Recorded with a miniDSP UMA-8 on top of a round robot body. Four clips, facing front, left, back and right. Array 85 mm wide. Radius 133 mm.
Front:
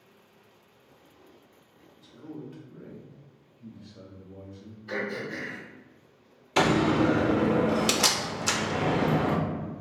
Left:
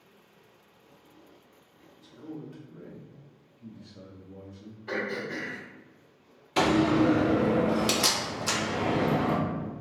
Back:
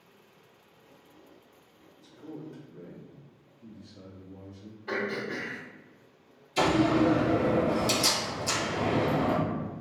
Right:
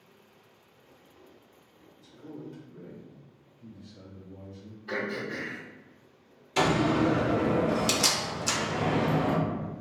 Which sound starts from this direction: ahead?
A door slam, at 6.6 s.